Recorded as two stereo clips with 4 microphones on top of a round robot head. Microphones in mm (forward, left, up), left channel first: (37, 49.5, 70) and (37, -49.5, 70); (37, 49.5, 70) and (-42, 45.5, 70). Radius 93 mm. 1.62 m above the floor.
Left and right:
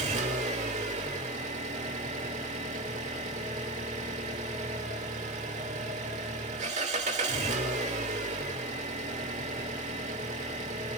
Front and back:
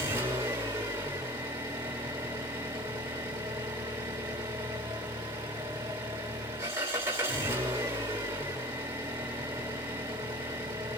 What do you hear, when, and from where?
0.0 s an engine running: 115° right, 2.5 m